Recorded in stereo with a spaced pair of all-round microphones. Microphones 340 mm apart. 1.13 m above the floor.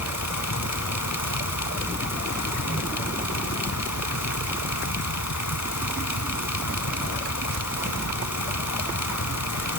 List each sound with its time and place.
0.0 s a fan: 55° left (ahead or behind)